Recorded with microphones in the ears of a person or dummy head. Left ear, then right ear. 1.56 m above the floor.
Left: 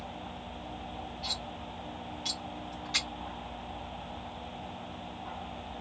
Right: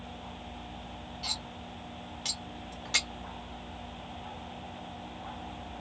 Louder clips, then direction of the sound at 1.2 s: Right 1 dB; 20° right (ahead or behind).